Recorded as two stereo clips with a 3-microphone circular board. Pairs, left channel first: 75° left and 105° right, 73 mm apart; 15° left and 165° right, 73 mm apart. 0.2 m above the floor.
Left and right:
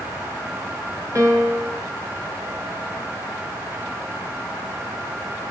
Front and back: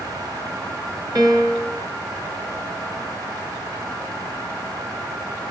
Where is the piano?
145° right, 2.5 m.